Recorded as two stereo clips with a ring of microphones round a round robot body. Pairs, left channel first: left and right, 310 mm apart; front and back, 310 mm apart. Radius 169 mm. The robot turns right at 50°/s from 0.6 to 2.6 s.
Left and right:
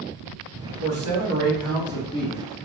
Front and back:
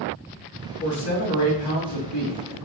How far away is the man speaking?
About 3 m.